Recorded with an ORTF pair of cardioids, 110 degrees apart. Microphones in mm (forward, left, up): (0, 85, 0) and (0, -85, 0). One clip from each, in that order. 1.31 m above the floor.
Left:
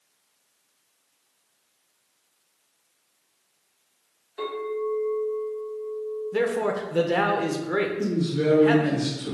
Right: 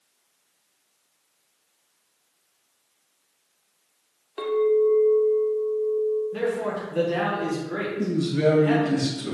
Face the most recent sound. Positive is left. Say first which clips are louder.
# right 3 dB
turn(degrees=-50)